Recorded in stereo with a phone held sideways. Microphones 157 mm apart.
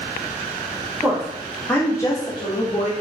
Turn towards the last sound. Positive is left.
turn(degrees=45)  # may be behind; listen again after turning